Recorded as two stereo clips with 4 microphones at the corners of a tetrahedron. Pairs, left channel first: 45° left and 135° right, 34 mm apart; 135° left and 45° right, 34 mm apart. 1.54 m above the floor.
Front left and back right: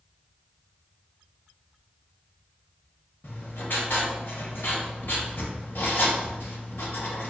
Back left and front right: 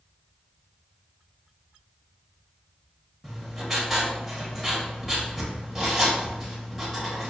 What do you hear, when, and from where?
3.2 s writing: 40° left, 1.4 m